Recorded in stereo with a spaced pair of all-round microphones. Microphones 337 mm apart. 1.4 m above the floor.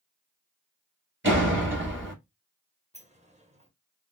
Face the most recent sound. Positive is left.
turn(degrees=-20)  # may be behind; listen again after turning